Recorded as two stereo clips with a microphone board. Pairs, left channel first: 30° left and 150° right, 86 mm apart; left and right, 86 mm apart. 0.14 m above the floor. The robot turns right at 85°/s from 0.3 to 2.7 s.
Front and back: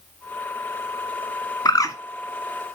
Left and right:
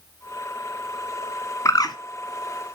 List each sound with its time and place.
1.6 s a bird: 50° left, 0.8 m; by 1.9 s 75° left, 0.8 m